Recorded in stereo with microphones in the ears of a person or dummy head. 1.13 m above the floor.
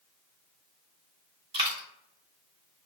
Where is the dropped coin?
30° right (ahead or behind), 1.2 m.